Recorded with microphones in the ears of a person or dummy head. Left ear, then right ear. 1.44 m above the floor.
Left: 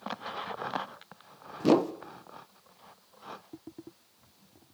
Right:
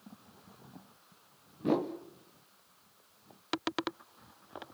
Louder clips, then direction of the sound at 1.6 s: Left 7 dB; 80° left.